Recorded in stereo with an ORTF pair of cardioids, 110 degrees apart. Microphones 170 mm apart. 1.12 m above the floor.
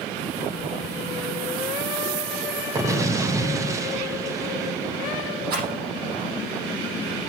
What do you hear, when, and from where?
2.8 s an explosion: 20° right, 1.0 m
5.5 s a rattle: 65° right, 6 m